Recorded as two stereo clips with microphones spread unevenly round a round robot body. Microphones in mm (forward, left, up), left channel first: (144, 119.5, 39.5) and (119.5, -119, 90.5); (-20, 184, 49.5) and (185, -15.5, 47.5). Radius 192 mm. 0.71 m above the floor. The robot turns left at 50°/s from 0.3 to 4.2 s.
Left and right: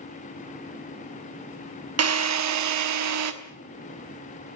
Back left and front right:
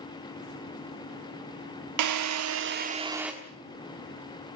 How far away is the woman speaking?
No woman speaking in this recording.